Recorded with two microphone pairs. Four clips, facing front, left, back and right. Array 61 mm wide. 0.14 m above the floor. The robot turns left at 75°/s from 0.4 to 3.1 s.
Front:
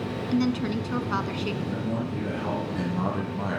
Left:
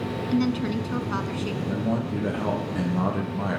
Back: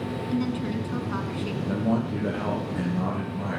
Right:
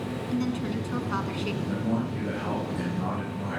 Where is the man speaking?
175° left, 6 m; by 3.6 s 70° left, 6 m.